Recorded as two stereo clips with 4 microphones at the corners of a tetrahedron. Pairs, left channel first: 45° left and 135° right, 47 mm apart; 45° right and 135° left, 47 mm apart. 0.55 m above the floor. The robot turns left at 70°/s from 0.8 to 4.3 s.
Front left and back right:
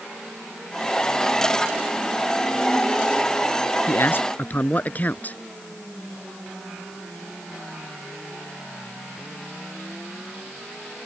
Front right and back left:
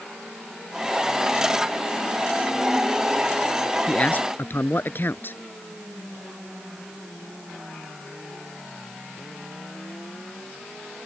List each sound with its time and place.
3.9 s a man speaking: 20° left; by 5.4 s 10° right